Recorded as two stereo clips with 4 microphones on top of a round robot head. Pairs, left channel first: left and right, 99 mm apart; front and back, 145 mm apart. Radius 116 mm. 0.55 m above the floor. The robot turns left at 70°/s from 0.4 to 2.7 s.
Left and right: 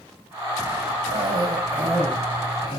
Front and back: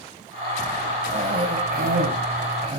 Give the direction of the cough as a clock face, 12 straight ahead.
4 o'clock.